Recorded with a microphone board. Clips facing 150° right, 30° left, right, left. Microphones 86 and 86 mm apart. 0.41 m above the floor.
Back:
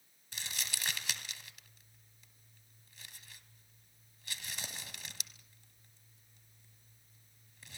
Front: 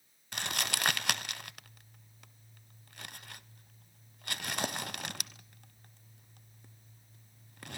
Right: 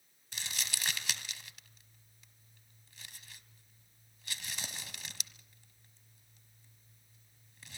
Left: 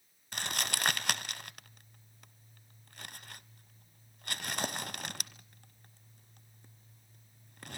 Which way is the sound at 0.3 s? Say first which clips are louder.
Front 9 dB, left 7 dB; 55° left.